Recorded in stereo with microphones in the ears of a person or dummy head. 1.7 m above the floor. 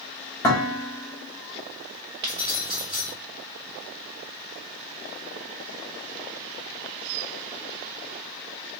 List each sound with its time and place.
0.4 s dishes clattering: 10° left (ahead or behind), 1.5 m
2.2 s keys jangling: 20° right (ahead or behind), 0.7 m